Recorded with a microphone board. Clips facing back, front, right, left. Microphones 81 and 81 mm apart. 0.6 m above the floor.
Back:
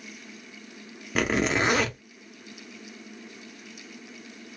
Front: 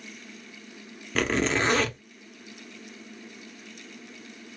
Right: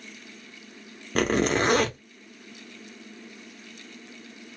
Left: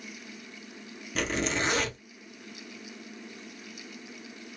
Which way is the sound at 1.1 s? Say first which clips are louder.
Back 1 dB, right 7 dB; 105° right.